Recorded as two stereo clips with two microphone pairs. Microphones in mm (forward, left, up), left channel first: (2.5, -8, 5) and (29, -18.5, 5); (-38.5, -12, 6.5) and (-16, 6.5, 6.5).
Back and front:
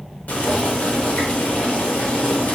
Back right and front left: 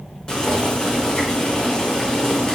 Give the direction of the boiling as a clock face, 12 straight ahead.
7 o'clock.